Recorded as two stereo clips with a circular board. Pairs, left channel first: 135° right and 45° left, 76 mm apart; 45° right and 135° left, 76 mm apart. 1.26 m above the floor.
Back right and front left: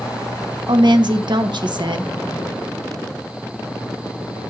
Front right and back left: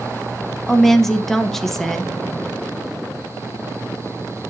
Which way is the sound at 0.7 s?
40° left.